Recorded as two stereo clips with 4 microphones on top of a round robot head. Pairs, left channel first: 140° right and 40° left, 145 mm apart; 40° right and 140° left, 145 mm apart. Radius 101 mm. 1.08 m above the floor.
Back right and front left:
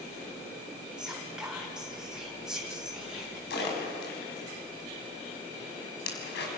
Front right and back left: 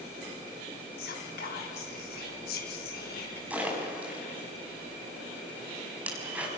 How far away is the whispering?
About 5.5 m.